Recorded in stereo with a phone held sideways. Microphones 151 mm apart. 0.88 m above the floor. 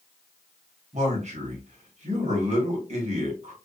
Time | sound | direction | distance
0.9 | a man speaking | 50° right (ahead or behind) | 1.2 m